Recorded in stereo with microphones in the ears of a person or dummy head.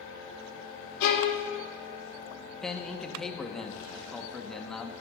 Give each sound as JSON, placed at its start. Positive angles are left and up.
{"t": 1.0, "sound": "a violin", "side_deg": 70, "distance_m": 2.5}
{"t": 2.6, "sound": "a man speaking", "side_deg": 5, "distance_m": 1.4}